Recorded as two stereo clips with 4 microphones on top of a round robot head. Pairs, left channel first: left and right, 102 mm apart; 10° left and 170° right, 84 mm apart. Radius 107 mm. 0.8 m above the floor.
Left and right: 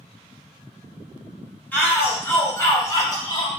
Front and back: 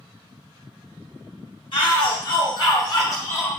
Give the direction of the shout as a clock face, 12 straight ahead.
11 o'clock.